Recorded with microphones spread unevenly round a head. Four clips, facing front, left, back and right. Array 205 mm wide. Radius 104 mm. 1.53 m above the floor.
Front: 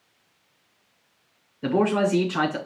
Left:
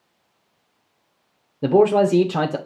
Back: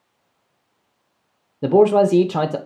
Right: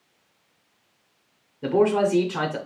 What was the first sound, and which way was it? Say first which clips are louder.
A man speaking: left 5 dB, back 8 dB; 140° left.